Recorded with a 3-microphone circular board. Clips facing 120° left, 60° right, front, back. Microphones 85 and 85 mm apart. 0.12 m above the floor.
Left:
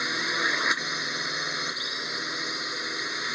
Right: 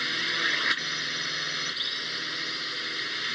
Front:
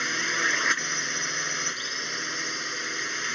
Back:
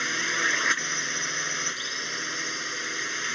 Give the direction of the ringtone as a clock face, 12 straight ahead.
No ringtone in this recording.